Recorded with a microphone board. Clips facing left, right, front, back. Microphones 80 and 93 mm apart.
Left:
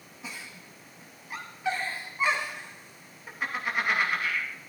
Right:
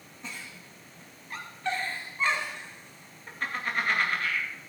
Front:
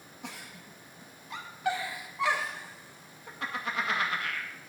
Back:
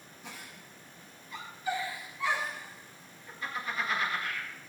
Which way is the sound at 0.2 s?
10° left.